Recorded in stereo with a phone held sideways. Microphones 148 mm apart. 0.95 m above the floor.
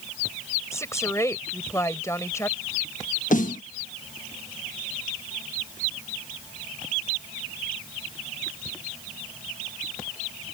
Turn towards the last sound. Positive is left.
turn(degrees=65)  # may be behind; listen again after turning